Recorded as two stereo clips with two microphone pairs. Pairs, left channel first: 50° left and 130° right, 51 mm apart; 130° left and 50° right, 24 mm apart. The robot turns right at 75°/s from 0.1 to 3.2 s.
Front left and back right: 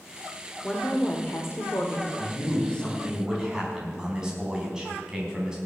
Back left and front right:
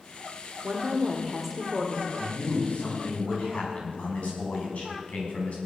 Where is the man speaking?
75° left, 5 m; by 5.6 s 150° left, 5 m.